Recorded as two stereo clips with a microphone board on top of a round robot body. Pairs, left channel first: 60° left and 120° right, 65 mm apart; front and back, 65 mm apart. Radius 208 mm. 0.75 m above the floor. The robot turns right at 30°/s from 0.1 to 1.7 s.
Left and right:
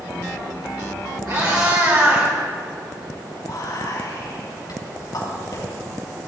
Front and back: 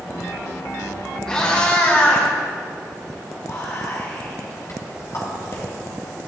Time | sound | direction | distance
1.3 | a cat meowing | 80° right | 1.8 m
3.4 | whispering | 40° left | 4.5 m